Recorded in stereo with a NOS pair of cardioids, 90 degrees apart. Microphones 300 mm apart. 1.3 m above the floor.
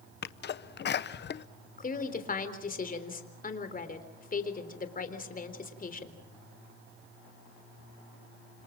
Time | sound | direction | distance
0.2 | a sneeze | 40° left | 0.7 m
1.8 | a woman speaking | 30° left | 3.5 m